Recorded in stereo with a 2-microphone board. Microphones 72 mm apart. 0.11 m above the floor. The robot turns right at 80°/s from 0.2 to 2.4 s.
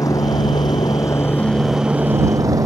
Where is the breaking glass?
I don't hear breaking glass.